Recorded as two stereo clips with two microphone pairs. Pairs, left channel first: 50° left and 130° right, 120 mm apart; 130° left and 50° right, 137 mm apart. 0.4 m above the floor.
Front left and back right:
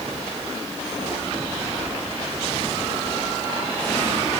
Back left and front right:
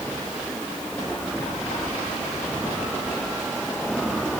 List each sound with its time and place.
Only background noise.